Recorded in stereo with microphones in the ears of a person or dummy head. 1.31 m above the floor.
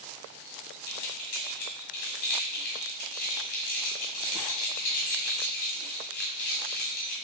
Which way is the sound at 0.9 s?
55° left (ahead or behind).